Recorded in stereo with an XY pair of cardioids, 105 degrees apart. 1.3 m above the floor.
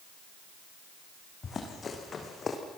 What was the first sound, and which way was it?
Running footsteps, 40° left.